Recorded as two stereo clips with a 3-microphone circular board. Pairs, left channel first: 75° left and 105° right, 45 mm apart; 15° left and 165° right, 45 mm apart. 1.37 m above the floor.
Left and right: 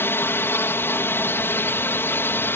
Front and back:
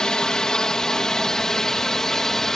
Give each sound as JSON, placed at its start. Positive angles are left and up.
{"t": 0.0, "sound": "a drone", "azimuth_deg": 90}